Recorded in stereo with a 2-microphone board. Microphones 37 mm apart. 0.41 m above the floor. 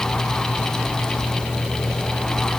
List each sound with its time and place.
Only background noise.